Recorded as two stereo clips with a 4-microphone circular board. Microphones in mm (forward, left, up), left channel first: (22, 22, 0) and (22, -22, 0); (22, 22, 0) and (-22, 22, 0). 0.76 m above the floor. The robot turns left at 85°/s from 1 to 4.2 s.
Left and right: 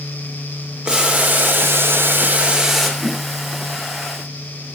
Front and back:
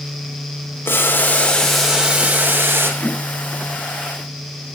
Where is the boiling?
25° right, 3 m; by 2.9 s 175° left, 3 m.